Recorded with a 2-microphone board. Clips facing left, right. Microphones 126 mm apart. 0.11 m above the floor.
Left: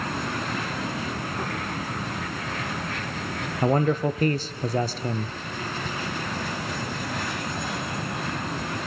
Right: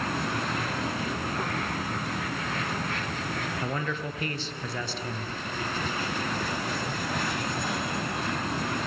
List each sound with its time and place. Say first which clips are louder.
3.6 s a man speaking: left 15 dB; 40° left (ahead or behind), 1.6 m